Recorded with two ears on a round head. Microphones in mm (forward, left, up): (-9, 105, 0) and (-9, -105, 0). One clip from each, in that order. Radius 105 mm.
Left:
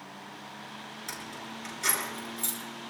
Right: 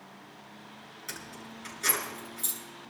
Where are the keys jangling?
10° left (ahead or behind), 7 m.